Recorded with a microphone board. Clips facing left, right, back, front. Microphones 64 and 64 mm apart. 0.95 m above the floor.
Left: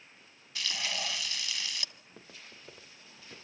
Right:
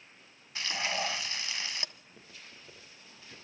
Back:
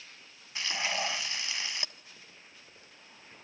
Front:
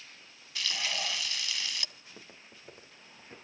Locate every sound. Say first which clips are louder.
0.6 s frying: right 3 dB, back 2 dB; 130° right, 1.0 m
1.9 s footsteps: left 1 dB, front 2 dB; 55° left, 5.5 m; by 3.4 s 45° left, 4.5 m